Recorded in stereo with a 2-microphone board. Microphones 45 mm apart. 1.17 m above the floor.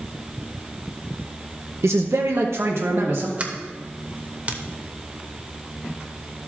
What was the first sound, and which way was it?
A man speaking, 75° right (ahead or behind).